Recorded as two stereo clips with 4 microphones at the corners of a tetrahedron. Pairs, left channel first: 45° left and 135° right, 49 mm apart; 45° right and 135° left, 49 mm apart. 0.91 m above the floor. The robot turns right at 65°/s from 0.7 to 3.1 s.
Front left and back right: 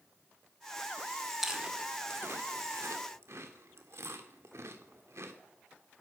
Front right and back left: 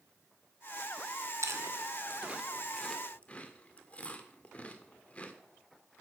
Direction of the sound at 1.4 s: 145° left.